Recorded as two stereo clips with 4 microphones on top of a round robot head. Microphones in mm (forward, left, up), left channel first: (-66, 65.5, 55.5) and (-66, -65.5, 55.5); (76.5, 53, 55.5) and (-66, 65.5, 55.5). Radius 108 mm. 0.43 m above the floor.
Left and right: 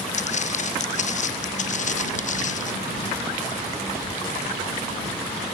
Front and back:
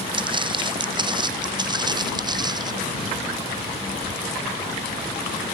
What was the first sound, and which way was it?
Footsteps, 120° left.